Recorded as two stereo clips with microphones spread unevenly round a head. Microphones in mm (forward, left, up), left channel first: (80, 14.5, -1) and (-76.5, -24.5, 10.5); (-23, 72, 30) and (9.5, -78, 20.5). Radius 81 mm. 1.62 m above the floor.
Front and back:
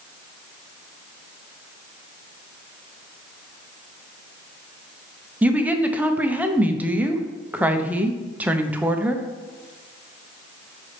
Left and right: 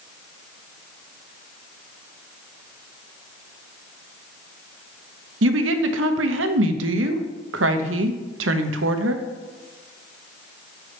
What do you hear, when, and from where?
5.4 s a woman speaking: 85° right, 0.7 m